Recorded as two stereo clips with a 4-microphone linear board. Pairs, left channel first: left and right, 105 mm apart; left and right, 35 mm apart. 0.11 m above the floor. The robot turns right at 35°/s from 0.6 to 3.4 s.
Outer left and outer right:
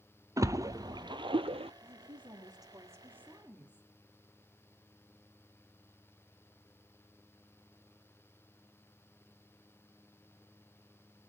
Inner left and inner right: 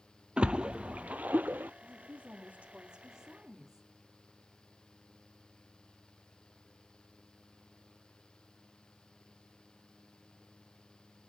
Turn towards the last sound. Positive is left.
turn(degrees=-10)